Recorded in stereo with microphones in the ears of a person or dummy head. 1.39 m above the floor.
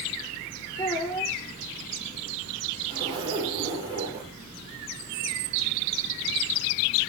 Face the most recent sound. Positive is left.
turn(degrees=-25)  # may be behind; listen again after turning